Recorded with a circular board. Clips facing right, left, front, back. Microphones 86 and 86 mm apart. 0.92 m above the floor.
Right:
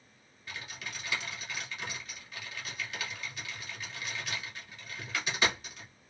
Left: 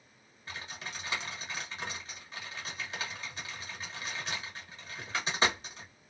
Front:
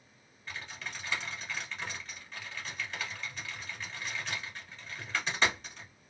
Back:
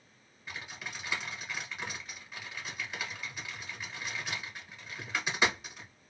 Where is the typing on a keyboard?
105° left, 1.0 m.